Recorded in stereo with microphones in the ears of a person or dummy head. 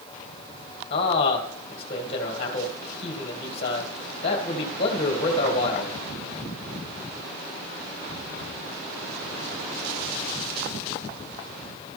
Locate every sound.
0.9 s a man speaking: 35° left (ahead or behind), 2 m